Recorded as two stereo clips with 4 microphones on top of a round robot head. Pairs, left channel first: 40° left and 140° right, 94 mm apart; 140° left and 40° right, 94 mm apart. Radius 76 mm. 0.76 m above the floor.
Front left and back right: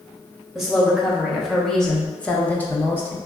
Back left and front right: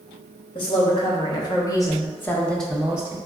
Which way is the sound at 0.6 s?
135° left.